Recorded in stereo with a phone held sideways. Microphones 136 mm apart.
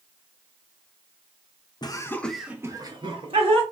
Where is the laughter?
30° left (ahead or behind), 0.6 m; by 3.6 s 50° right (ahead or behind), 0.9 m.